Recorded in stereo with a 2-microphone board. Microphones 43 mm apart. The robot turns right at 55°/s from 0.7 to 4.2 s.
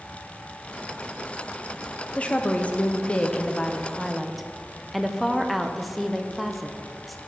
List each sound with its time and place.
2.1 s a woman speaking: 65° left, 0.5 m; by 7.2 s 175° left, 0.5 m